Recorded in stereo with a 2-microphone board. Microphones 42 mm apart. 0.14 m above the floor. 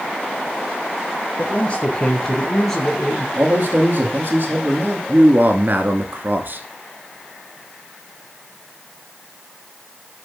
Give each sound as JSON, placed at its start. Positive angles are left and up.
{"t": 1.4, "sound": "a man speaking", "side_deg": 30, "distance_m": 2.5}
{"t": 3.4, "sound": "a man speaking", "side_deg": -45, "distance_m": 3.5}
{"t": 5.1, "sound": "a man speaking", "side_deg": -50, "distance_m": 1.6}